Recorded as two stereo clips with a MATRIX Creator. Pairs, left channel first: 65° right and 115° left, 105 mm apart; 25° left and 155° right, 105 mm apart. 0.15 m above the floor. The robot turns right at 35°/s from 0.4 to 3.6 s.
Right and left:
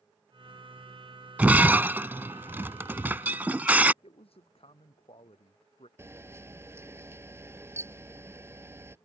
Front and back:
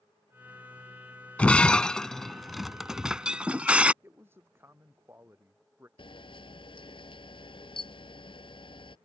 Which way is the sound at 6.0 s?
50° left.